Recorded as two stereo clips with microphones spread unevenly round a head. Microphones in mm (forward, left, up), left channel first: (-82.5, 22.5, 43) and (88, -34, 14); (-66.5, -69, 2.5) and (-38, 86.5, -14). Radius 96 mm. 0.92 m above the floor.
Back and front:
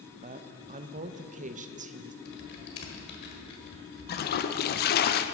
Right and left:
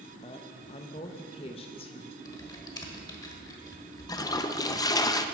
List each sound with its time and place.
0.2 s a woman speaking: 40° right, 0.6 m
2.2 s typing on a keyboard: 165° right, 1.5 m
4.1 s a toilet flushing: 170° right, 0.6 m